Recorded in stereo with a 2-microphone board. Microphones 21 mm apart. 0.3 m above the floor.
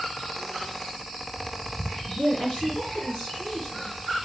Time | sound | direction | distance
2.1 | a woman speaking | 50° left (ahead or behind) | 3 m